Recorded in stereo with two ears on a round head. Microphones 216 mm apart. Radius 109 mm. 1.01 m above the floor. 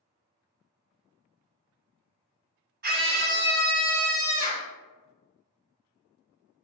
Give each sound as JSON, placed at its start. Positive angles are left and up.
{"t": 2.8, "sound": "a scream", "side_deg": -40, "distance_m": 0.8}